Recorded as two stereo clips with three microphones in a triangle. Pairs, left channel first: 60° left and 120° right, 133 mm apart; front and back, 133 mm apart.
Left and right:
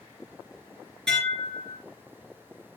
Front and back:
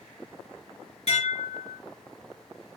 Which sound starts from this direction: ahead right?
Dishes clattering, at 1.1 s.